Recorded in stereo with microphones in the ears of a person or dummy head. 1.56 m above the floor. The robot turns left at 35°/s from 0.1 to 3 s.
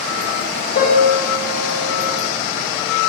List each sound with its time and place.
0.8 s a piano: 125° left, 2.5 m; by 2.0 s 80° left, 2.5 m